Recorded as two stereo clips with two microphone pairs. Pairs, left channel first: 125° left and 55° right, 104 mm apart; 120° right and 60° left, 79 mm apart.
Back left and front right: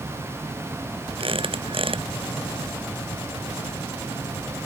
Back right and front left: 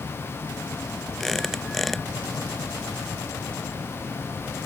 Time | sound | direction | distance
1.2 | a squeak | 30° right | ?